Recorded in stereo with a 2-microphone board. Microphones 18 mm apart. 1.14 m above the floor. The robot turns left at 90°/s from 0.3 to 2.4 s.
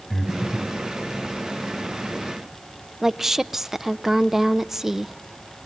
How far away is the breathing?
About 3.5 m.